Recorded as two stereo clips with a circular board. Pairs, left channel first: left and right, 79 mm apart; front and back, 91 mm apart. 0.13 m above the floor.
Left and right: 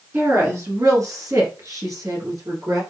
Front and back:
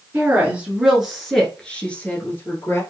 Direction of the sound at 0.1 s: 120° right.